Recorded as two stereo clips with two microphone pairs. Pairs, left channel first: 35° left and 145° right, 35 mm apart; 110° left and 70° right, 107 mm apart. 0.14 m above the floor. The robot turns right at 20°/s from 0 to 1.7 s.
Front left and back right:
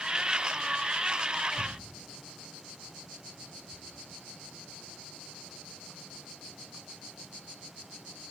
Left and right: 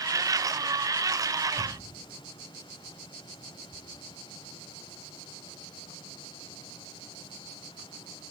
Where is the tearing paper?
135° right, 1.7 m; by 3.8 s 130° right, 1.7 m.